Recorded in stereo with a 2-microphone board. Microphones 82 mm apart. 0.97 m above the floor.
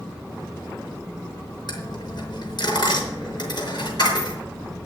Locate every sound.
1.7 s a dropped coin: 55° left (ahead or behind), 5 m